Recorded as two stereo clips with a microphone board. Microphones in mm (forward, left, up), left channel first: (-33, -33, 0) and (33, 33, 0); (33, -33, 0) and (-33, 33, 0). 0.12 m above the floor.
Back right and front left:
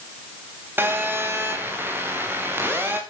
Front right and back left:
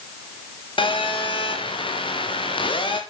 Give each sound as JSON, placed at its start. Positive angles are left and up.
{"t": 0.8, "sound": "a phone buzzing", "azimuth_deg": -20, "distance_m": 4.0}